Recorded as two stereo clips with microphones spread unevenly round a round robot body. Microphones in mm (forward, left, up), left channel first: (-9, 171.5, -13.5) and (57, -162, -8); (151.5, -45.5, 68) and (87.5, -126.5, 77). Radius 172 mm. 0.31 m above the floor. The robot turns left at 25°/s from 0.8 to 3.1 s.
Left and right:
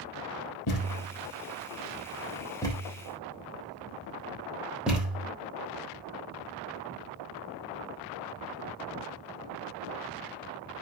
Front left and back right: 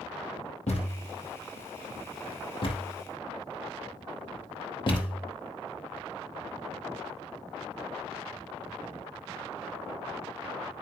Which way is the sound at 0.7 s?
65° left.